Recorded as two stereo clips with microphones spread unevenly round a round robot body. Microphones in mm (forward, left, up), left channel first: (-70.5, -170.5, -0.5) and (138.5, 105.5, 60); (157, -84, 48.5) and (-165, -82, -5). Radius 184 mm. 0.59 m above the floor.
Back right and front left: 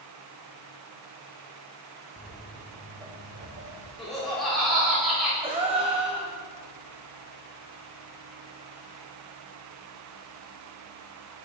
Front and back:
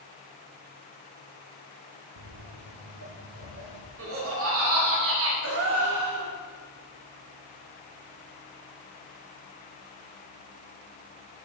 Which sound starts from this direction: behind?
Footsteps, at 2.2 s.